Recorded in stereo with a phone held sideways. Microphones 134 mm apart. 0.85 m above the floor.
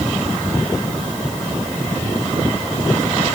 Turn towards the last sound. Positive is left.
No sound to turn to.